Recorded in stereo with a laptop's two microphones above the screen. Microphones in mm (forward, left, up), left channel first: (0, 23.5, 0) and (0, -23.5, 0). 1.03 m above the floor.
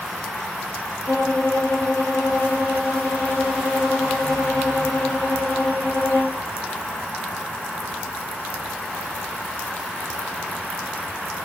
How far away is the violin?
About 1.8 m.